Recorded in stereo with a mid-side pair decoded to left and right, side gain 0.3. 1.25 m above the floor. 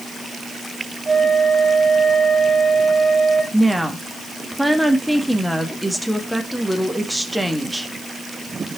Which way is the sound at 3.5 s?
5° right.